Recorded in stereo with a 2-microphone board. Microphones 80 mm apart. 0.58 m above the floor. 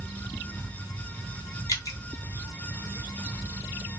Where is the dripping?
45° left (ahead or behind), 0.7 m.